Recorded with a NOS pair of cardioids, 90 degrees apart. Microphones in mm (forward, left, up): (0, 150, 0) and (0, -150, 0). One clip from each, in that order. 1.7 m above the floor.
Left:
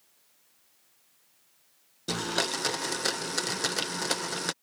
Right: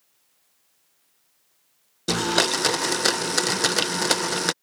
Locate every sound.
2.1 s a blender: 45° right